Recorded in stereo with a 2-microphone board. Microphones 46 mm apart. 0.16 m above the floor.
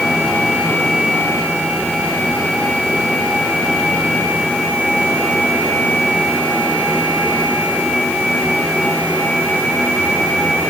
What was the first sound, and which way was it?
Only background noise.